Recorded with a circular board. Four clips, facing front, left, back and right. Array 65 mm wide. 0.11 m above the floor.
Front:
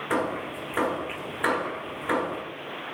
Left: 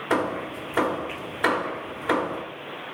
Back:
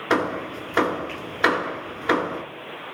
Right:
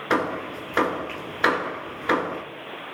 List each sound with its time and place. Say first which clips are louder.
0.1 s hammering: right 1 dB, back 5 dB; 150° right, 1.0 m